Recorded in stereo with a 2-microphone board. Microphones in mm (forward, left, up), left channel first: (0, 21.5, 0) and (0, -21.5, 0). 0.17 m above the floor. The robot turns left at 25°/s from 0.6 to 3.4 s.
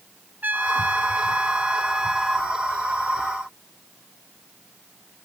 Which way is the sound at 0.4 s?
115° right.